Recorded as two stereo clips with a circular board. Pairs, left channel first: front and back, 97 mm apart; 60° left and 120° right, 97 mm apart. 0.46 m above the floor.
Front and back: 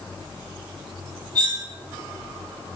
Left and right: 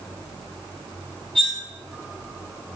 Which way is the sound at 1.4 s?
140° left.